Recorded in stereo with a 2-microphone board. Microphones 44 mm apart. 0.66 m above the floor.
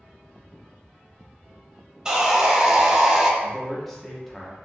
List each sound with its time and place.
2.0 s sawing: 15° right (ahead or behind), 0.6 m
3.4 s a man speaking: 5° left (ahead or behind), 0.6 m